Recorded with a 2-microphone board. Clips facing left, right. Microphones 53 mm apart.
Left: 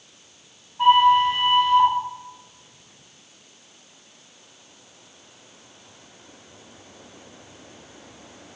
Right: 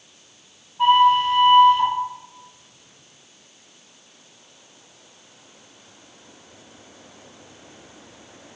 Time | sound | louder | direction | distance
0.8 | a flute | even | 5° left (ahead or behind) | 4 m